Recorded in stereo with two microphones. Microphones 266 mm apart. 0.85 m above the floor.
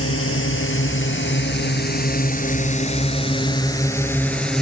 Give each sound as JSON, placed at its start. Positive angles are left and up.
{"t": 0.0, "sound": "a drone", "side_deg": 55}